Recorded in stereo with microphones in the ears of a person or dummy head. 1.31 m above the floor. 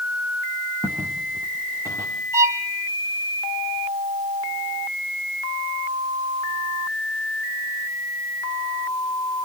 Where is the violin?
15° right (ahead or behind), 1.4 m.